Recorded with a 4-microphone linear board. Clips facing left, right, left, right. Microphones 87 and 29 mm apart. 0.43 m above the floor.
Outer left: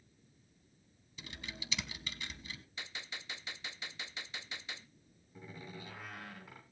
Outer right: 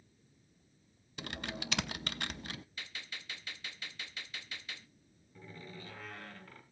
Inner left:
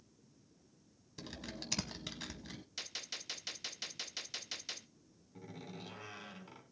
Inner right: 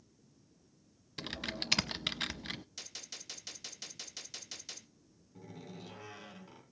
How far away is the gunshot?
About 0.9 m.